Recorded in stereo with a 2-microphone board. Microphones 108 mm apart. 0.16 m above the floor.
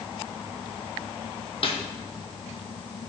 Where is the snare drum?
55° left (ahead or behind), 1.1 m.